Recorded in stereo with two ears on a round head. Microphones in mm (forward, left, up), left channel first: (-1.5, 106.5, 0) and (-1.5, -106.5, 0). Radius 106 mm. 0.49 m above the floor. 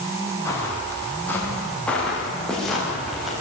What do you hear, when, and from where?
0.5 s footsteps: 15° left (ahead or behind), 9.5 m; by 3.3 s centre (ahead or behind), 10.5 m